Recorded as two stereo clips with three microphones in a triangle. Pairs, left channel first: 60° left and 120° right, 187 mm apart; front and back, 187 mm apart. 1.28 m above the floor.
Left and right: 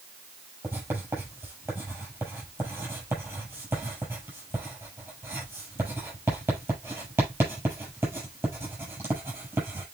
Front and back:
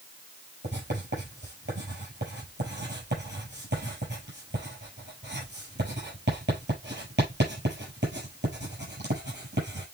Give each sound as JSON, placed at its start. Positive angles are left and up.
{"t": 0.6, "sound": "writing", "azimuth_deg": 160, "distance_m": 6.5}